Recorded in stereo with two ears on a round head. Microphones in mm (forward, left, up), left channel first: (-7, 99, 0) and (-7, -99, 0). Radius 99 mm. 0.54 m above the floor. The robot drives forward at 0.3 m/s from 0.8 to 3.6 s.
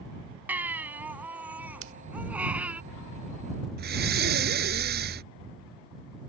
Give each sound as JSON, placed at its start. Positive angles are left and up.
{"t": 0.5, "sound": "a baby crying", "side_deg": -10}
{"t": 1.8, "sound": "scissors", "side_deg": -65}
{"t": 3.8, "sound": "breathing", "side_deg": -50}